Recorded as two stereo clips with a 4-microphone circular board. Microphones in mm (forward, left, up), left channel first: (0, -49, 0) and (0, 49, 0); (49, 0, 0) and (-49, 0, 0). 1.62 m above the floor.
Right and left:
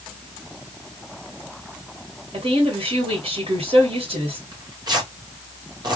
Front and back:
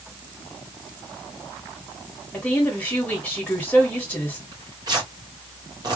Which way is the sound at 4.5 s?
135° left.